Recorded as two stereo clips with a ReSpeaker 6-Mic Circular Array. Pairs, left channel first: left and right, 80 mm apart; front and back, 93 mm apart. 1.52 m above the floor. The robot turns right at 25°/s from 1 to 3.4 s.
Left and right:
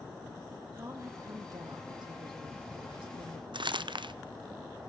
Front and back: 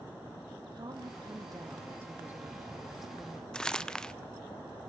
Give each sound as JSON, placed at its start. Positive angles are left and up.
{"t": 0.7, "sound": "a woman speaking", "azimuth_deg": -140, "distance_m": 3.0}
{"t": 3.5, "sound": "crumpling", "azimuth_deg": -80, "distance_m": 0.7}